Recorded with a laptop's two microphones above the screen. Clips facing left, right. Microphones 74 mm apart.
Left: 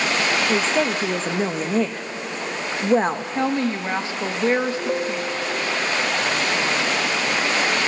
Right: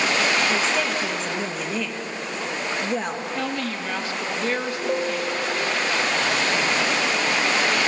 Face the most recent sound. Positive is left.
turn(degrees=30)  # may be behind; listen again after turning